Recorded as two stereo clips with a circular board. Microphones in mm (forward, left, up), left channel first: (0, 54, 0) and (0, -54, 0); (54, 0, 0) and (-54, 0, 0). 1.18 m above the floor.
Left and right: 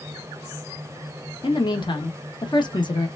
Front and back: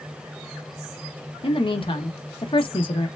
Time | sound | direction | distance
1.4 | a woman speaking | 40° left | 1.0 m